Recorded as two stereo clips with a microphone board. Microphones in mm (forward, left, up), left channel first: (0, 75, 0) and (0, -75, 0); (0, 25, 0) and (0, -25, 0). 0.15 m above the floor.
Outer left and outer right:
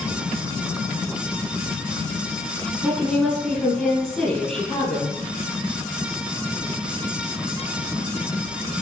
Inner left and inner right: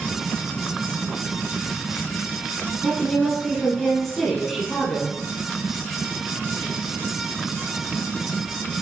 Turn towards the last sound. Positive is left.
turn(degrees=5)  # may be behind; listen again after turning